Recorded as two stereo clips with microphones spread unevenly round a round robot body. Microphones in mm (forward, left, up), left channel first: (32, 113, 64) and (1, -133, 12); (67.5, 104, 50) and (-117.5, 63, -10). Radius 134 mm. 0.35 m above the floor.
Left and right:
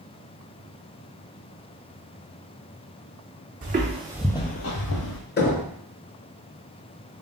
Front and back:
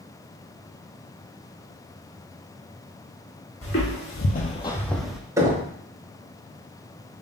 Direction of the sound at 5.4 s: 135° left.